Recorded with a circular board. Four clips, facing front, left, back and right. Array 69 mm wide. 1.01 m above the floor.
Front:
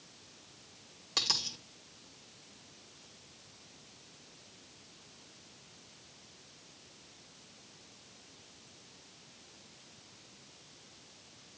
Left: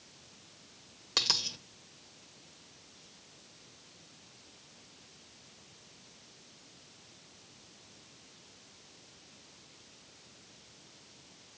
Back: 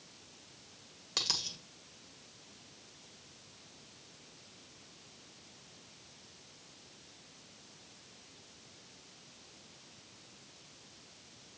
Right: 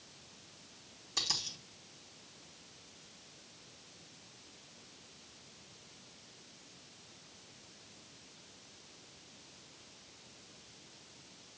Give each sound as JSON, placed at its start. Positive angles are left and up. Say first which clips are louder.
{"t": 1.2, "sound": "a dropped coin", "louder": "left 5 dB, front 3 dB", "azimuth_deg": 90, "distance_m": 1.7}